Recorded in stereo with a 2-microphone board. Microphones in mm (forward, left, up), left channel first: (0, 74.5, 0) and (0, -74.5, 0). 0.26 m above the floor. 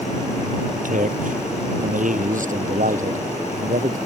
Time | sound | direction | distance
0.7 | a man speaking | 65° right (ahead or behind) | ?